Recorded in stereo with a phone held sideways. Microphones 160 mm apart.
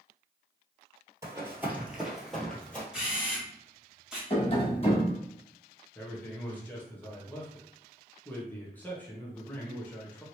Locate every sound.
1.2 s running footsteps: 20° right (ahead or behind), 1.2 m; by 2.8 s 10° left (ahead or behind), 1.4 m
2.9 s a camera shutter: 5° right (ahead or behind), 1.3 m
4.3 s tapping: 35° left (ahead or behind), 1.1 m
6.0 s a man speaking: 10° left (ahead or behind), 0.9 m